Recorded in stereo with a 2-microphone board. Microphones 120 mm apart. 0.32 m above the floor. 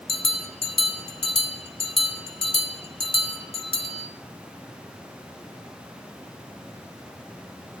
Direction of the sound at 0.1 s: 50° left (ahead or behind).